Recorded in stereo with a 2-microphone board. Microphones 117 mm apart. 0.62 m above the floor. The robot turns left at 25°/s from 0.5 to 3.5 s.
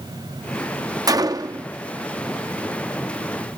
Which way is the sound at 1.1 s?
30° right (ahead or behind).